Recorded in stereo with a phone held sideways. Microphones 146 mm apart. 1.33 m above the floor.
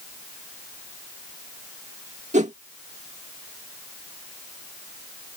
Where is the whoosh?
60° right (ahead or behind).